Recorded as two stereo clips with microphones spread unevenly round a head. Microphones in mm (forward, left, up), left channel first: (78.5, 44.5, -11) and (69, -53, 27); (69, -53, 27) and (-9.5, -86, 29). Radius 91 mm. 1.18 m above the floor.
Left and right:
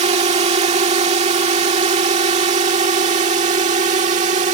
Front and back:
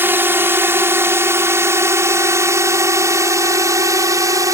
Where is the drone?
95° right; by 4.5 s 115° right.